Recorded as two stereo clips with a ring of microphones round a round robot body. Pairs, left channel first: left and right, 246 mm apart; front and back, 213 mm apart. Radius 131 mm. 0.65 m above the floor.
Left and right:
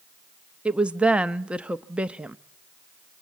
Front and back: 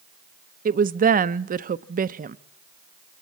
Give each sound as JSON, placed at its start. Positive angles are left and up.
{"t": 0.7, "sound": "a woman speaking", "azimuth_deg": -175, "distance_m": 0.7}